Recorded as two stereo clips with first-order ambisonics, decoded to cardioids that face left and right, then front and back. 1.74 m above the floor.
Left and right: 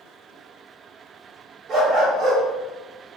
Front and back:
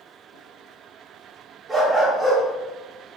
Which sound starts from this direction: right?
A dog barking, at 1.7 s.